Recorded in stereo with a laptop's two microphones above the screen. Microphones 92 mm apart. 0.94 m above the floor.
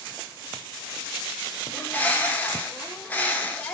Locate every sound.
1.7 s a bird: 20° left (ahead or behind), 1.3 m